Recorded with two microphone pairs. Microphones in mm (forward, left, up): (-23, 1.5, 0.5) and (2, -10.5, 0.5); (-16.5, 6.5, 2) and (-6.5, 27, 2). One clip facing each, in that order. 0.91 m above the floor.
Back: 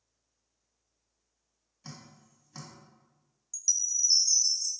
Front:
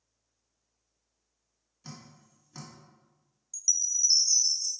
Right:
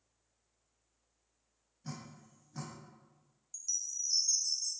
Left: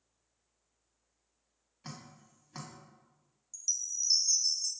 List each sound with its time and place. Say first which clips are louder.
1.8 s dripping: front 1 dB, right 1 dB; 70° left, 1.4 m
3.5 s a chime: front 1 dB, left 3 dB; 40° left, 0.5 m